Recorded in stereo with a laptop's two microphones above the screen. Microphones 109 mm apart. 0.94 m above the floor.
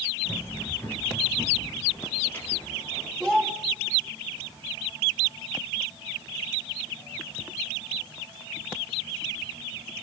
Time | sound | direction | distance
0.2 | running footsteps | 15° left (ahead or behind) | 7.5 m
3.2 | a child speaking | centre (ahead or behind) | 0.9 m